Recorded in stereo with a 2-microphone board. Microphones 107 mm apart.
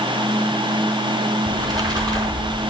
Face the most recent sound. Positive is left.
turn(degrees=-35)  # may be behind; listen again after turning